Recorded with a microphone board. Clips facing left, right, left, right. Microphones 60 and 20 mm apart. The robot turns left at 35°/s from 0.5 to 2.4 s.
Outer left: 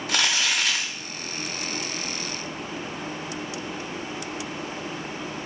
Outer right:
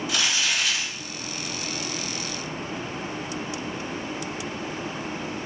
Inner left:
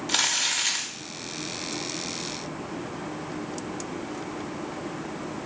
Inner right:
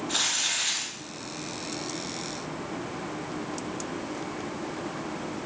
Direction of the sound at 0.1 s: 55° left (ahead or behind).